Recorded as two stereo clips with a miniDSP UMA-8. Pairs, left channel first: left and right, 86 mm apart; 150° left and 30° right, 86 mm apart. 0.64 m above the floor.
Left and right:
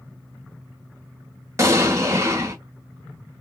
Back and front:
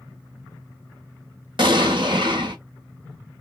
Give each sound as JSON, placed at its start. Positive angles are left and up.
{"t": 1.6, "sound": "an explosion", "azimuth_deg": -35, "distance_m": 0.8}